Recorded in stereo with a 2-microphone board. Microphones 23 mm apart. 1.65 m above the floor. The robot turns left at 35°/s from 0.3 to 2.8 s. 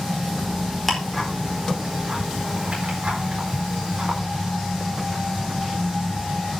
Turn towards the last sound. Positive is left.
turn(degrees=-70)  # may be behind; listen again after turning